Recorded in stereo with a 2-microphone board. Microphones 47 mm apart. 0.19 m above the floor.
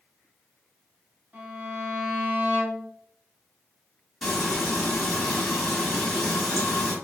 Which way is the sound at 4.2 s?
5° left (ahead or behind).